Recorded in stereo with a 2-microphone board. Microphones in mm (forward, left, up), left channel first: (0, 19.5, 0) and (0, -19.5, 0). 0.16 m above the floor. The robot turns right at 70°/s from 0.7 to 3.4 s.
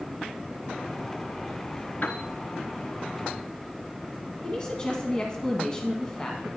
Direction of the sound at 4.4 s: 20° left (ahead or behind).